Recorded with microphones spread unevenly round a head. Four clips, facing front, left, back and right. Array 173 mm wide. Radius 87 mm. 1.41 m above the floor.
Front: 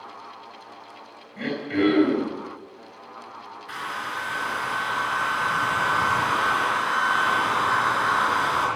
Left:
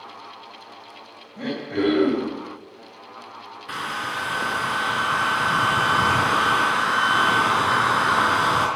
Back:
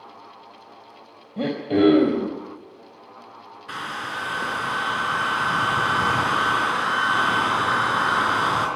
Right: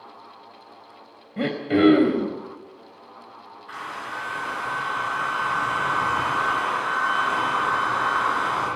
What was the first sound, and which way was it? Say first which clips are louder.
Throat clearing: right 5 dB, back 4 dB; 140° right.